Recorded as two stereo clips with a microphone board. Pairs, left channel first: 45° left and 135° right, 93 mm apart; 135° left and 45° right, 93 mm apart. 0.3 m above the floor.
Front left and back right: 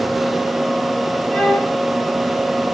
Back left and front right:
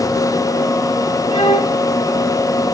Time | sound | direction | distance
1.3 | a violin | 130° left | 6.5 m